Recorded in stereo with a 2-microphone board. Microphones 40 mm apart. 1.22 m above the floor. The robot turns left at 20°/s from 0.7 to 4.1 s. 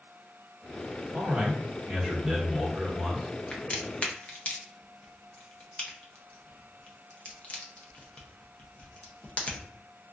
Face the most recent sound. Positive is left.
turn(degrees=35)  # may be behind; listen again after turning